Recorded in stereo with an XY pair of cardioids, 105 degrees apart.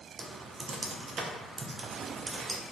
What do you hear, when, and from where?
0.2 s typing on a keyboard: 40° right, 0.5 m